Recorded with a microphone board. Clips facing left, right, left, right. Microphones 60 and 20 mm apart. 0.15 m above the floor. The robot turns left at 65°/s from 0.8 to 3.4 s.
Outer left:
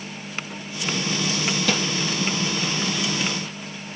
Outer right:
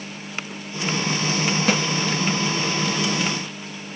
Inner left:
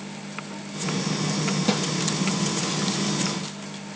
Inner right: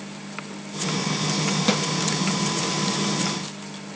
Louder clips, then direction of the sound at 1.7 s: Outer right 3 dB, inner right 2 dB; 30° right (ahead or behind).